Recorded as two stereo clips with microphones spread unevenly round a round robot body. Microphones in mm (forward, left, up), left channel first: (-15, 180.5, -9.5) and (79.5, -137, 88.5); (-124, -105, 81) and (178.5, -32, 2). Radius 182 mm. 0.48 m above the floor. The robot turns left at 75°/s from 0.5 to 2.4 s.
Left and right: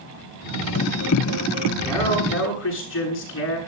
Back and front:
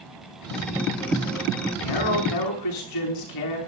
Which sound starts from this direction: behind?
A man speaking, at 1.8 s.